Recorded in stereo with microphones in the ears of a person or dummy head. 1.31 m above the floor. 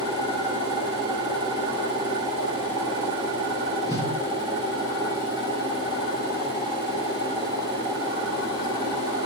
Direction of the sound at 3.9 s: 25° left (ahead or behind).